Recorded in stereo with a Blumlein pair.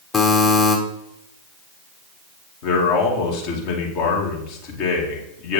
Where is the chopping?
No chopping in this recording.